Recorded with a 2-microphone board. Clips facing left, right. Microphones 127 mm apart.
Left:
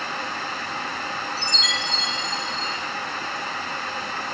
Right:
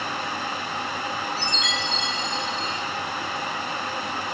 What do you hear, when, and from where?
1.4 s a chime: 45° left (ahead or behind), 4 m